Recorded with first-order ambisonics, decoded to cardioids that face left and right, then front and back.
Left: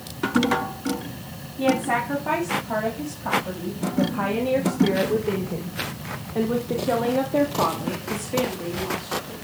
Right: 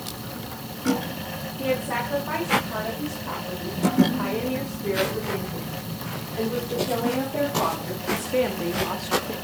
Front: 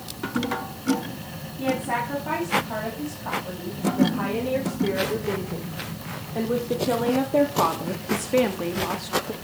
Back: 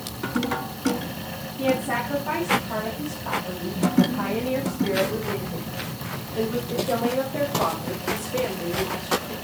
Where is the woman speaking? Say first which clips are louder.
Left 4 dB, back 1 dB; 75° left, 5.5 m; by 9.3 s 45° right, 1.4 m.